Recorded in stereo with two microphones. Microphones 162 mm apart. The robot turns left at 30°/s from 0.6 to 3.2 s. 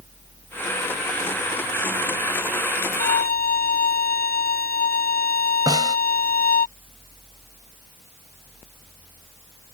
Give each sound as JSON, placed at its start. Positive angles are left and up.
{"t": 3.0, "sound": "a violin", "side_deg": 65}
{"t": 5.7, "sound": "a snare drum", "side_deg": -25}